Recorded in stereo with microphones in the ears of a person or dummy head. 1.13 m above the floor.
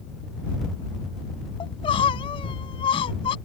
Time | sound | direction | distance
1.6 | crying | 25° left (ahead or behind) | ?